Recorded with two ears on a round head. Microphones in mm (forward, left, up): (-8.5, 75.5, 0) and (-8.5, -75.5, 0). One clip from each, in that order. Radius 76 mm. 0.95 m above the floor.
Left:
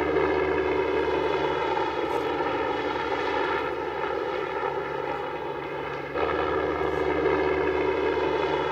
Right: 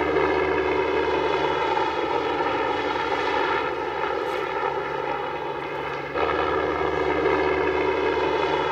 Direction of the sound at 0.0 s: 20° right (ahead or behind).